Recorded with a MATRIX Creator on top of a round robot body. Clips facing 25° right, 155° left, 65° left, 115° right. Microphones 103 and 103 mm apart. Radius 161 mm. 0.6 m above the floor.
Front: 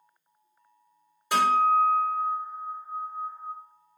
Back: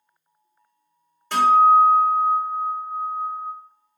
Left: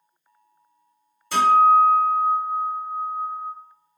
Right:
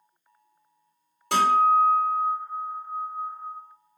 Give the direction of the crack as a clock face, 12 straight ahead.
I don't hear a crack.